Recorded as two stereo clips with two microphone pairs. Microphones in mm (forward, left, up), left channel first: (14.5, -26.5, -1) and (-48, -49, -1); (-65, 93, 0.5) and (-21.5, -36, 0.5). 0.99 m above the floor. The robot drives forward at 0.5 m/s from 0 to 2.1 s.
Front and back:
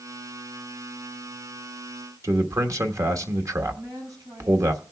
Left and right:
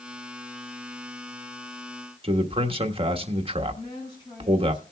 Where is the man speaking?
120° right, 1.3 m.